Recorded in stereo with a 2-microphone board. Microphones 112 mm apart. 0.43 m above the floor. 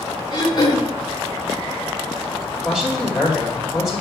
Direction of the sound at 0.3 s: 40° left (ahead or behind).